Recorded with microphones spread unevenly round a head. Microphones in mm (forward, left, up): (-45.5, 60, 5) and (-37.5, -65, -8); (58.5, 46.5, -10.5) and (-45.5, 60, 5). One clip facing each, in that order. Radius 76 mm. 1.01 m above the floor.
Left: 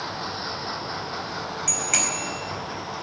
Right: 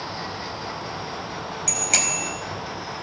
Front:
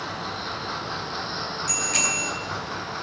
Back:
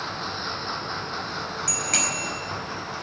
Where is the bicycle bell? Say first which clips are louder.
Right 3 dB, even; 140° right, 4.5 m.